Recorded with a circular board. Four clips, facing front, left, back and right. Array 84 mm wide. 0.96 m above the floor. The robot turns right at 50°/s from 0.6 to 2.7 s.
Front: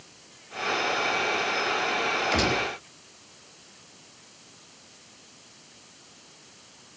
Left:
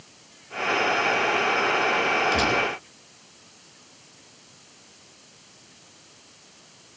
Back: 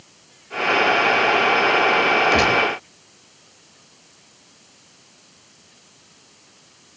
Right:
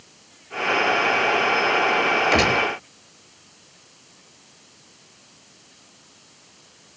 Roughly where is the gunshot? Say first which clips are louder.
Right 4 dB, back 8 dB; behind right.